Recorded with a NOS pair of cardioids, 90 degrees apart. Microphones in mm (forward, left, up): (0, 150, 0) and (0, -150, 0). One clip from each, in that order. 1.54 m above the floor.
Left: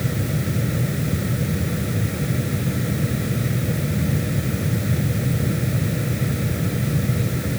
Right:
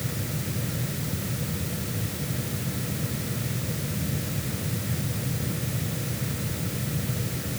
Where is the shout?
I don't hear a shout.